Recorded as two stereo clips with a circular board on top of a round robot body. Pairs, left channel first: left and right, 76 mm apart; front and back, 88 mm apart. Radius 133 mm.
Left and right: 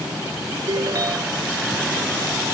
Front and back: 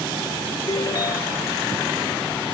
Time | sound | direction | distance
0.7 | a ringtone | 50° right | ?